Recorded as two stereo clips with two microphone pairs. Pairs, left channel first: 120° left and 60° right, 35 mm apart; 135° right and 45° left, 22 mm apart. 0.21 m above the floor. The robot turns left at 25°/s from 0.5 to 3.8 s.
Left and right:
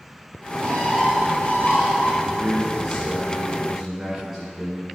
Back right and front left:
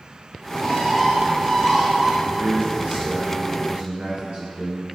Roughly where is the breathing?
I don't hear breathing.